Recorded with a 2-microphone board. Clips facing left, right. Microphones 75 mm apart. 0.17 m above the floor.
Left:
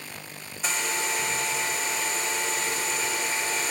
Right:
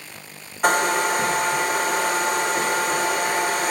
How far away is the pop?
No pop in this recording.